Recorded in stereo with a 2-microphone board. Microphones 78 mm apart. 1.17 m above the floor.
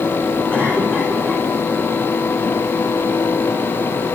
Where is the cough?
15° left (ahead or behind), 3 m.